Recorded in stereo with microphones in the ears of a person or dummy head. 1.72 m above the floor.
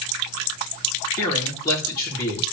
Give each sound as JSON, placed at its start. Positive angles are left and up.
{"t": 1.2, "sound": "a man speaking", "side_deg": 20, "distance_m": 3.5}